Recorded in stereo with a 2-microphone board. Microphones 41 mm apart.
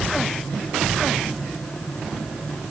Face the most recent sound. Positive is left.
No sound to turn to.